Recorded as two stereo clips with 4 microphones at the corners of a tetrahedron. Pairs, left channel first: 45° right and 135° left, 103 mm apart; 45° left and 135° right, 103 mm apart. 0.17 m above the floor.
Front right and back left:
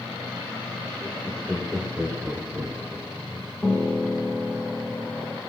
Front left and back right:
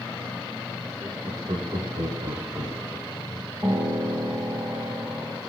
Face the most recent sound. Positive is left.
turn(degrees=-110)